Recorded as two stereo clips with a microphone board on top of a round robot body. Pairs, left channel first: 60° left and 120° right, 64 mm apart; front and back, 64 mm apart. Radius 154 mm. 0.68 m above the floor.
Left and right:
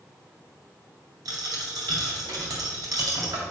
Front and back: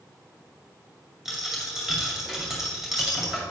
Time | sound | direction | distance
1.2 | a dropped coin | 95° right | 2 m